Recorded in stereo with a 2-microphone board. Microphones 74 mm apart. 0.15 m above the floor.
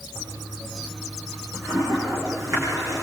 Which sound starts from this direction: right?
A toilet flushing, at 0.1 s.